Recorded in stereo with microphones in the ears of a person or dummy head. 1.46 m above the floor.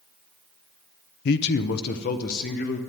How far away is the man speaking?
About 0.5 m.